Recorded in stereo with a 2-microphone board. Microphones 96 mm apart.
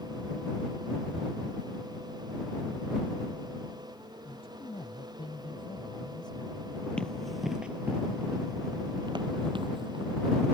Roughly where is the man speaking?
Left.